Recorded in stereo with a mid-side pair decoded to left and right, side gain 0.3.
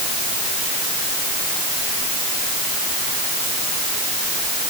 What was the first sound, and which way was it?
Only background noise.